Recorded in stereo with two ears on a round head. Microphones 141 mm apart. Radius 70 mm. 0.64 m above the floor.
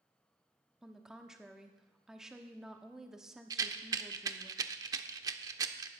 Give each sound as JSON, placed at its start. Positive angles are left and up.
{"t": 0.8, "sound": "a woman speaking", "side_deg": -5, "distance_m": 1.0}
{"t": 3.5, "sound": "a rattle", "side_deg": -25, "distance_m": 0.7}